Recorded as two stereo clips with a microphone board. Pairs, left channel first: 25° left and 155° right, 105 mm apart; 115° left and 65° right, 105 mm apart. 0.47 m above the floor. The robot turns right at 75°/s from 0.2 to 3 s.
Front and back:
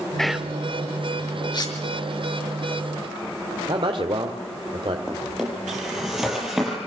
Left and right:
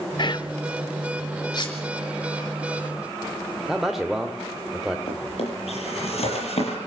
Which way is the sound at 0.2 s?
105° left.